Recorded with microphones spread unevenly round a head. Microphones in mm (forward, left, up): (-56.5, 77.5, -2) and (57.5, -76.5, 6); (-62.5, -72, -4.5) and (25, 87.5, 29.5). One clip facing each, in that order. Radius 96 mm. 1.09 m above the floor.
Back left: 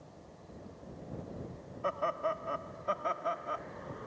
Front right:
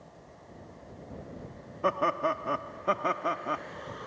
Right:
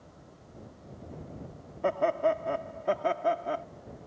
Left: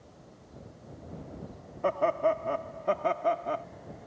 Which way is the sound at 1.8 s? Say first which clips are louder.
Front right 5 dB, even; 35° right.